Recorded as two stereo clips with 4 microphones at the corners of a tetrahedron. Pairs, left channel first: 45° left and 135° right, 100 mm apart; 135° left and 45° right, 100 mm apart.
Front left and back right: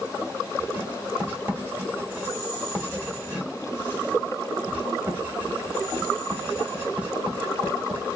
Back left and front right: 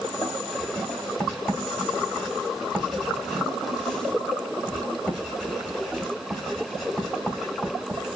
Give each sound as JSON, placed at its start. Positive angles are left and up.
{"t": 0.6, "sound": "writing", "azimuth_deg": -150, "distance_m": 1.5}